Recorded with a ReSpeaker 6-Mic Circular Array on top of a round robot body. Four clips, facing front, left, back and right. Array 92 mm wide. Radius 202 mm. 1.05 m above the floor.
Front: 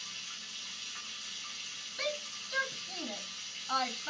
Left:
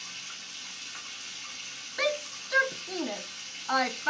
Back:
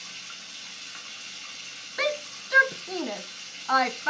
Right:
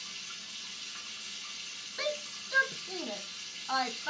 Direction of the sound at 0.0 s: 165° left.